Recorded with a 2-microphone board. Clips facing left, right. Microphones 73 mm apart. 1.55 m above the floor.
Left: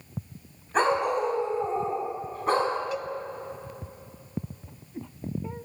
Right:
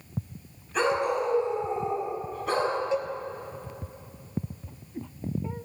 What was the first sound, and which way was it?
A dog barking, 40° left (ahead or behind).